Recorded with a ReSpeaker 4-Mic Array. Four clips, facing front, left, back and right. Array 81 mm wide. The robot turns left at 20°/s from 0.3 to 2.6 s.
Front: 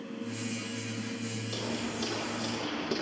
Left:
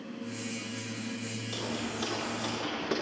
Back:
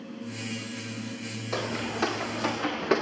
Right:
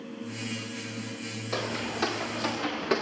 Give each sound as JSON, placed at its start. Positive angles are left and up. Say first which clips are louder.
{"t": 1.5, "sound": "footsteps", "louder": "right 5 dB, back 6 dB", "azimuth_deg": -150, "distance_m": 6.0}